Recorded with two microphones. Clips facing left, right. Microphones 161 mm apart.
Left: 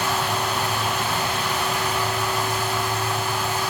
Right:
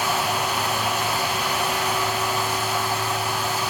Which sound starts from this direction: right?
Running water, at 0.0 s.